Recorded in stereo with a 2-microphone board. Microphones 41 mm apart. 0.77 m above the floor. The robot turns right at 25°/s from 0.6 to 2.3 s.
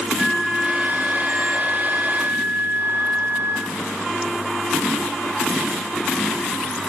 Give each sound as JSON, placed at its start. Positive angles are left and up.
{"t": 0.2, "sound": "a flute", "azimuth_deg": -170, "distance_m": 4.0}